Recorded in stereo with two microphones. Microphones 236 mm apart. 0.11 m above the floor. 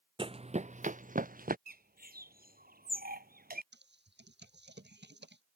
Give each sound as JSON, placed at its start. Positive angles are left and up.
{"t": 0.2, "sound": "running footsteps", "side_deg": -20}
{"t": 1.7, "sound": "a bird", "side_deg": -40}
{"t": 3.7, "sound": "typing on a keyboard", "side_deg": -50}